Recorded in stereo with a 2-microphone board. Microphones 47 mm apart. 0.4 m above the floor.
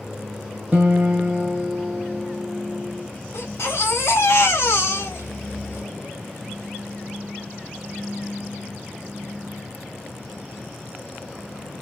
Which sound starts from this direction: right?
A guitar, at 0.7 s.